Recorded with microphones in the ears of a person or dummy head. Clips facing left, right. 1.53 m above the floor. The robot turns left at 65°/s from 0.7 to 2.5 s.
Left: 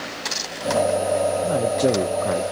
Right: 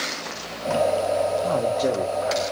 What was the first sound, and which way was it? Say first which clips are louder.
A man speaking: left 2 dB; 175° left.